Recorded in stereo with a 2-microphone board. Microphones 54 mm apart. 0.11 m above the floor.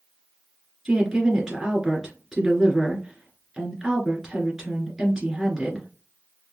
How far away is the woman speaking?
About 1.6 m.